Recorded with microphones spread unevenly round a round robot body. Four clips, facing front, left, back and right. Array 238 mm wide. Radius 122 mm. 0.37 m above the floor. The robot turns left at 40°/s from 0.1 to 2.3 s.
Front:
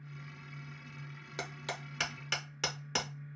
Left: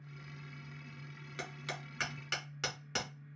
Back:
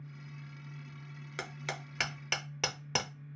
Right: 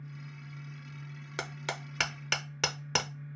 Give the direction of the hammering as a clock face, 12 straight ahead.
2 o'clock.